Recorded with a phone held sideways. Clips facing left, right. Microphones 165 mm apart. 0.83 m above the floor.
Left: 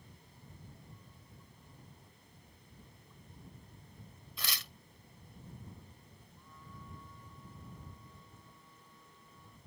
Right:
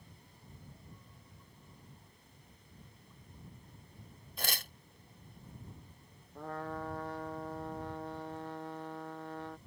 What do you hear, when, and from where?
4.4 s tearing paper: 50° right (ahead or behind)
6.3 s a trumpet: 85° right